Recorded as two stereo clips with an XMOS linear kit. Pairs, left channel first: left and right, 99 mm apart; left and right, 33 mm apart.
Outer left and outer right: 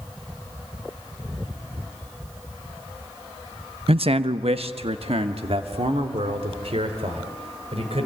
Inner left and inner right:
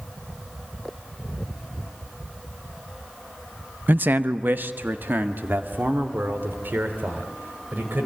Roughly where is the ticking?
I don't hear ticking.